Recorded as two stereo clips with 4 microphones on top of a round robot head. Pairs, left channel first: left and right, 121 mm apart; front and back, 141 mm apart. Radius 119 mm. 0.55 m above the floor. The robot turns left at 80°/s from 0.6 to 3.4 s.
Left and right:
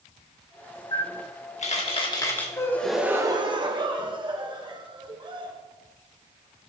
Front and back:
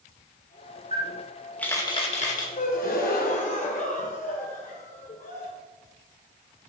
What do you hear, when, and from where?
0.9 s a camera shutter: 135° left, 1.9 m; by 2.5 s 10° left, 1.9 m
2.6 s a gasp: 30° left, 1.4 m; by 5.5 s 40° right, 1.4 m